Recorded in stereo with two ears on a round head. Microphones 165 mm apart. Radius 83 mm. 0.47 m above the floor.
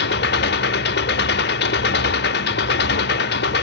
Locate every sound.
0.0 s an engine running: 65° left (ahead or behind), 0.8 m